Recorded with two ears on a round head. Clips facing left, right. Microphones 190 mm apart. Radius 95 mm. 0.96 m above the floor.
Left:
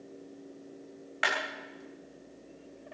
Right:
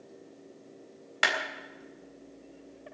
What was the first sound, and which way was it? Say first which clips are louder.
A clap: right 1 dB; 60° right (ahead or behind).